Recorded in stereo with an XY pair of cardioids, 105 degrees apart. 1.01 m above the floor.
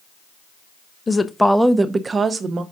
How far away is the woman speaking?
About 0.7 m.